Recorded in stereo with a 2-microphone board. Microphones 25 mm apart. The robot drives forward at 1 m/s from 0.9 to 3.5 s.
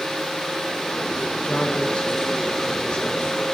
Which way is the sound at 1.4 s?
60° left (ahead or behind).